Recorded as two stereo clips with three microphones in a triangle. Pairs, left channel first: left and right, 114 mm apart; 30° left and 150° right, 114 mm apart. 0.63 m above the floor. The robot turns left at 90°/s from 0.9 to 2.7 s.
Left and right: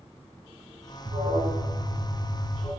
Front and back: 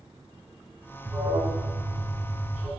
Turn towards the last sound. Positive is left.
turn(degrees=130)